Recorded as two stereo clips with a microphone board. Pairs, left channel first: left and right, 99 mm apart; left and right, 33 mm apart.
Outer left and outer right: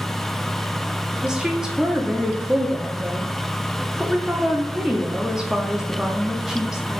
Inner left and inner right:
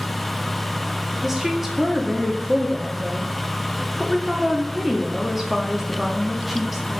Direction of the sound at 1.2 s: 5° right (ahead or behind).